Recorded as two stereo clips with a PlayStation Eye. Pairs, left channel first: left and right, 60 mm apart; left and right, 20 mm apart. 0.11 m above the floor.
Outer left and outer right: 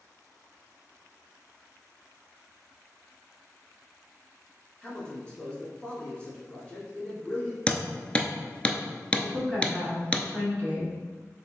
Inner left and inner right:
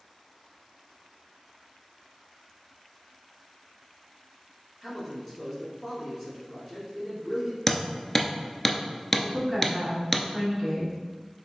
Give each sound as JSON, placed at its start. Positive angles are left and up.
{"t": 4.8, "sound": "a man speaking", "side_deg": 15, "distance_m": 1.5}
{"t": 7.7, "sound": "hammering", "side_deg": 20, "distance_m": 0.6}
{"t": 9.2, "sound": "a woman speaking", "side_deg": 25, "distance_m": 1.8}